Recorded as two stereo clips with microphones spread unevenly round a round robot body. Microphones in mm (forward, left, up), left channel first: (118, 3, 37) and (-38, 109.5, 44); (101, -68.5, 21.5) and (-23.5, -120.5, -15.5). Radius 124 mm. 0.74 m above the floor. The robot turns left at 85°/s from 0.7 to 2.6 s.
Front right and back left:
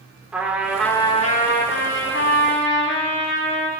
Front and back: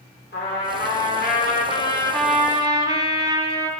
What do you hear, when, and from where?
0.3 s a trumpet: 60° left, 2.5 m; by 3.7 s 100° right, 2.5 m